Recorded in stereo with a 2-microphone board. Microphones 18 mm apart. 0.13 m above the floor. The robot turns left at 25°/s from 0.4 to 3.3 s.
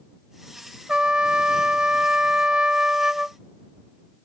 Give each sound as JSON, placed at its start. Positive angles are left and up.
{"t": 0.9, "sound": "a trumpet", "azimuth_deg": -65}